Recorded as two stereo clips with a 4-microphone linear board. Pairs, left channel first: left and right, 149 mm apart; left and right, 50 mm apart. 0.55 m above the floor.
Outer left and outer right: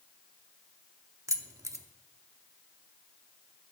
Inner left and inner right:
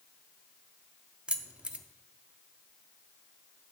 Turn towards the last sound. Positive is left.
turn(degrees=-20)  # may be behind; listen again after turning